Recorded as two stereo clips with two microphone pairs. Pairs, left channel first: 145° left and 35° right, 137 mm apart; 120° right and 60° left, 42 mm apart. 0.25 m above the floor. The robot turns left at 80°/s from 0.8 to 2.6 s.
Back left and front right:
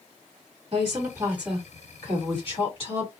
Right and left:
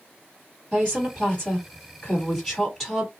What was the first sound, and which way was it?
A woman speaking, 65° right.